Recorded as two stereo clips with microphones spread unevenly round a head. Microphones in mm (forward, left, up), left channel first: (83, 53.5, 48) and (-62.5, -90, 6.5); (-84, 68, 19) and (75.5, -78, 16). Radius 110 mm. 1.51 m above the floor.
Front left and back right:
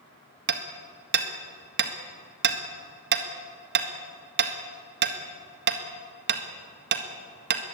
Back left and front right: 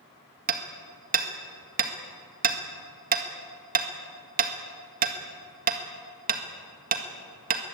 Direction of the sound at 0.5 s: 95° right.